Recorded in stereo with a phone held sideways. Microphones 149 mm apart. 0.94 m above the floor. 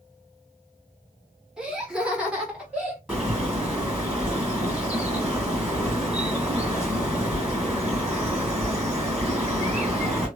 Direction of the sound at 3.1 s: 5° right (ahead or behind).